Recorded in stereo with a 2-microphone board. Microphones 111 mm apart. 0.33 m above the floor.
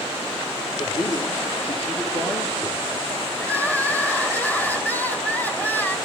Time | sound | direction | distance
0.8 | a man speaking | 55° left (ahead or behind) | 6.5 m
3.4 | crying | 15° left (ahead or behind) | 1.8 m